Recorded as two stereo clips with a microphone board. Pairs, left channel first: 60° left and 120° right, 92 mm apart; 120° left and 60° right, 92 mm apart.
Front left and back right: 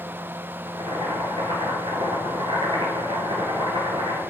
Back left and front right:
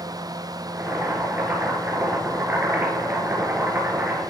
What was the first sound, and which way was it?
Boiling, 130° right.